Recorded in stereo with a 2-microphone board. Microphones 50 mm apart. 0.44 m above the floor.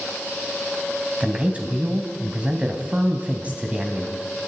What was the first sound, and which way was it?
A man speaking, 25° right (ahead or behind).